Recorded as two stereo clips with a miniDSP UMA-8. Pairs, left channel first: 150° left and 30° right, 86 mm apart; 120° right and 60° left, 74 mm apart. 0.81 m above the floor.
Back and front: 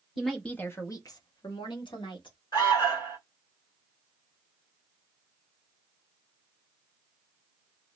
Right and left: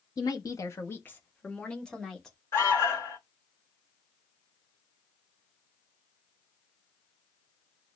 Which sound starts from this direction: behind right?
A woman speaking, at 0.2 s.